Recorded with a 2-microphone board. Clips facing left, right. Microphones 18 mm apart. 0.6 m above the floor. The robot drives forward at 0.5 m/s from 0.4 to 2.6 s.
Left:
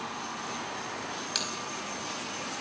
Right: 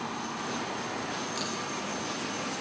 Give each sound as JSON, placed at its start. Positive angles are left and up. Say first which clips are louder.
{"t": 1.4, "sound": "a bell", "louder": "left 6 dB", "side_deg": 60, "distance_m": 5.0}